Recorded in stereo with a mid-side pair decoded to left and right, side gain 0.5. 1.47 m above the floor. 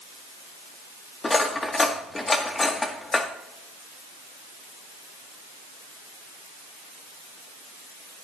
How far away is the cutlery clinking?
About 1.8 m.